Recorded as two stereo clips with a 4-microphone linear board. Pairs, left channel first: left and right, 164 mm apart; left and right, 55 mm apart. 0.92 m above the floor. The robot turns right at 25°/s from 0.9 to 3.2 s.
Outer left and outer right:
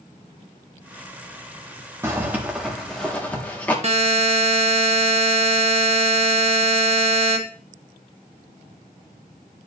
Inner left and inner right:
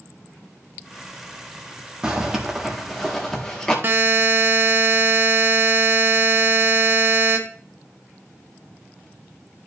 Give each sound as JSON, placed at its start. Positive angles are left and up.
{"t": 2.0, "sound": "a zipper", "side_deg": -20, "distance_m": 1.8}
{"t": 3.8, "sound": "a buzzer", "side_deg": -40, "distance_m": 1.4}